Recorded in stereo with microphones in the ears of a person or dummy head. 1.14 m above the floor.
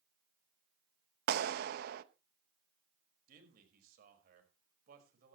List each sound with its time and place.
1.3 s a clap: 60° right (ahead or behind), 1.0 m
3.3 s a man speaking: 55° right (ahead or behind), 5.5 m